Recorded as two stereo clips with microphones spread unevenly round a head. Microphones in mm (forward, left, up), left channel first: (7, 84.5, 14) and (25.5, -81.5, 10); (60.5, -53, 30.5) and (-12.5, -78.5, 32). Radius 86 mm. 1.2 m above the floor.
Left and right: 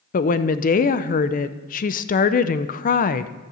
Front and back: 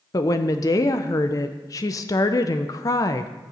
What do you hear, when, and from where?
0.1 s a woman speaking: 65° left, 0.5 m